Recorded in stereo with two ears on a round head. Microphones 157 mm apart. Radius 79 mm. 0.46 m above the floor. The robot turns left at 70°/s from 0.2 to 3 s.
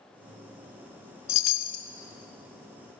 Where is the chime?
90° left, 0.6 m; by 1.9 s 50° left, 0.6 m.